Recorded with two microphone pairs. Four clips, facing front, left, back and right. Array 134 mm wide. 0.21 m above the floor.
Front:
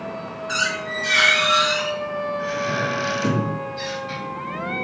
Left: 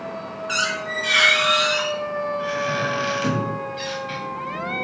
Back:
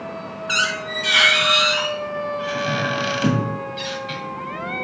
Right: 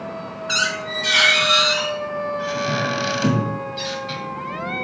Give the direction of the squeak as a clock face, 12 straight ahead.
5 o'clock.